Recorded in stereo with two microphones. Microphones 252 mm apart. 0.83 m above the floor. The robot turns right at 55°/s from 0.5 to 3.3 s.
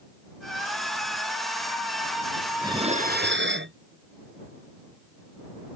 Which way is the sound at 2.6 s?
170° right.